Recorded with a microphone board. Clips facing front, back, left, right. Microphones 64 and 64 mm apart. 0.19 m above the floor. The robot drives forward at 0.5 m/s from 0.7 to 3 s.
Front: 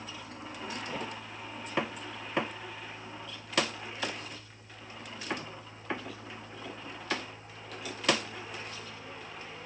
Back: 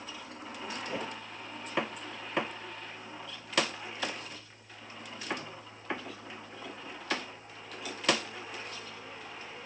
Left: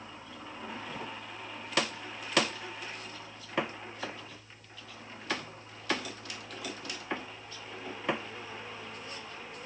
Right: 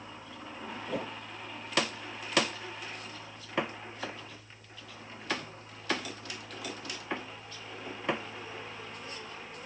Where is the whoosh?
105° right; by 1.1 s 110° right.